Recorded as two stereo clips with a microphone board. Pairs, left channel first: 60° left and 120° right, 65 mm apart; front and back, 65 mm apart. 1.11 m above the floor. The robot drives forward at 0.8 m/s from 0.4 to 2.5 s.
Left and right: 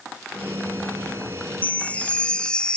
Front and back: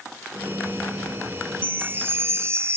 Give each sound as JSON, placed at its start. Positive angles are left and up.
{"t": 1.6, "sound": "a chime", "azimuth_deg": 120}